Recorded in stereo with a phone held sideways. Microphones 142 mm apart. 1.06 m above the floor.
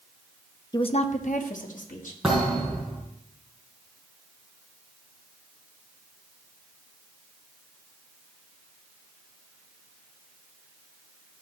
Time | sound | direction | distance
0.7 | a woman speaking | 30° left (ahead or behind) | 0.6 m
2.2 | a thud | centre (ahead or behind) | 4.5 m